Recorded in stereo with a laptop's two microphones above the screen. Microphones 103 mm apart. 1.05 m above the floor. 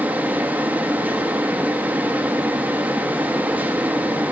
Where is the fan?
15° right (ahead or behind), 1.3 m.